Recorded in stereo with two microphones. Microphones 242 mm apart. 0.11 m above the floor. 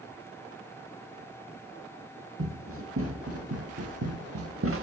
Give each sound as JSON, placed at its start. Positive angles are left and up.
{"t": 2.4, "sound": "running footsteps", "side_deg": -60, "distance_m": 1.5}